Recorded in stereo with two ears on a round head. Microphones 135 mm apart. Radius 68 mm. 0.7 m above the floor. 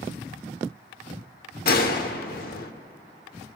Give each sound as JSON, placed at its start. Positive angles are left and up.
{"t": 1.6, "sound": "a gunshot", "side_deg": 70, "distance_m": 1.0}